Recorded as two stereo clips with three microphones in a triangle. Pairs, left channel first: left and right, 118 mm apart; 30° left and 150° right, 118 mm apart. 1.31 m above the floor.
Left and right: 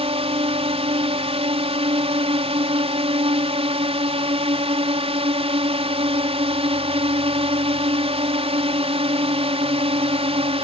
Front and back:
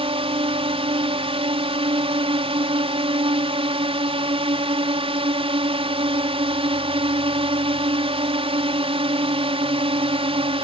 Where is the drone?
115° right.